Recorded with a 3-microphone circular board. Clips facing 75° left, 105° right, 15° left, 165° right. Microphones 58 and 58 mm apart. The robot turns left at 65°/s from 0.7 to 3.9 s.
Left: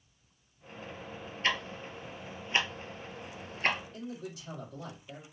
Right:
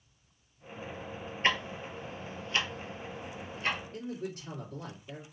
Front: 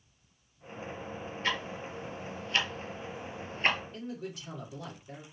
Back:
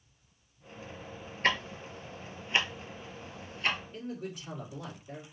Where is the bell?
No bell in this recording.